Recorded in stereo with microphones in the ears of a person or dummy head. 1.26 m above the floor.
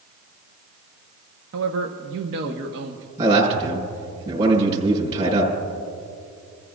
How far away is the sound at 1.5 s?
About 1.0 m.